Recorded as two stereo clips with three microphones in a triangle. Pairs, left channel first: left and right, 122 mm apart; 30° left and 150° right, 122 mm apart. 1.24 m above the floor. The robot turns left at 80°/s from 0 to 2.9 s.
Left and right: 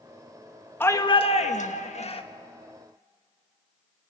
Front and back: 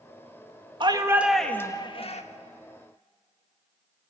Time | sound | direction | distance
0.8 | a shout | 165° left | 1.7 m